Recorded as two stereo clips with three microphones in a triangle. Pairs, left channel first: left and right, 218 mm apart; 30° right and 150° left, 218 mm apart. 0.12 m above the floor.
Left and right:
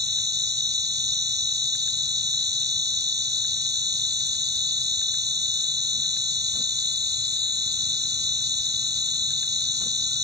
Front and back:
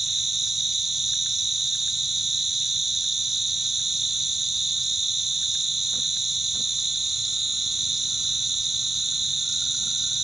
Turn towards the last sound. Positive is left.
turn(degrees=-120)